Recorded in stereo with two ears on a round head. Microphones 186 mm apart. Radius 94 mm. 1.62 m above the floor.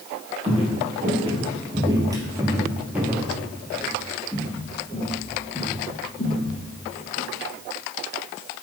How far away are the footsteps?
About 3 m.